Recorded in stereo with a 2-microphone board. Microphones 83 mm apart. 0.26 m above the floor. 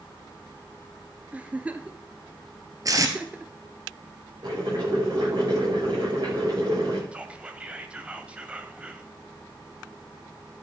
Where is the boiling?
55° right (ahead or behind), 8.5 m.